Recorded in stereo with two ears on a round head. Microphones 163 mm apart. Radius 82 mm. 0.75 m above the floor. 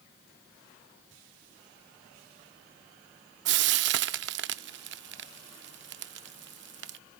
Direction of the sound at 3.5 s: 65° right (ahead or behind).